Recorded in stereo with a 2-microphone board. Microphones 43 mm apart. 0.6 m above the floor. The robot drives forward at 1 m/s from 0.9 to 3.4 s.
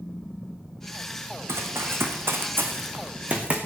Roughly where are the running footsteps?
Right.